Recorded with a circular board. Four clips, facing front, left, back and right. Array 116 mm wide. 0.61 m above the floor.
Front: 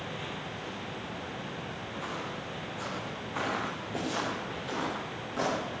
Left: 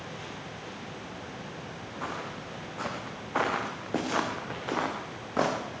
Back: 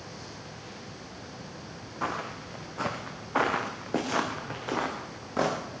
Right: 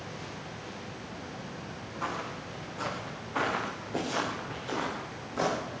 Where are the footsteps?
175° left, 2 m; by 5.6 s 115° left, 3 m.